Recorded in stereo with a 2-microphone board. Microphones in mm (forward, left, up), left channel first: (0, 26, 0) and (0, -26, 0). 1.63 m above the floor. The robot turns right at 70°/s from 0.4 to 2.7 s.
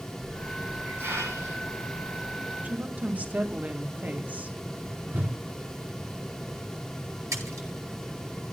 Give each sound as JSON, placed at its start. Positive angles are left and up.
{"t": 0.2, "sound": "a hiss", "side_deg": -5, "distance_m": 8.5}
{"t": 2.6, "sound": "a woman speaking", "side_deg": -30, "distance_m": 2.0}
{"t": 5.1, "sound": "a whoosh", "side_deg": -40, "distance_m": 3.5}
{"t": 7.3, "sound": "a splash", "side_deg": -85, "distance_m": 9.5}